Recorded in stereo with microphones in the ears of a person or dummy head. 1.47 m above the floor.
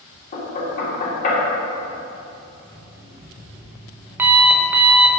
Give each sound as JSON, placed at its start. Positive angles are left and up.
{"t": 0.3, "sound": "knocking", "side_deg": 45, "distance_m": 3.0}
{"t": 2.6, "sound": "an alarm clock", "side_deg": -10, "distance_m": 0.8}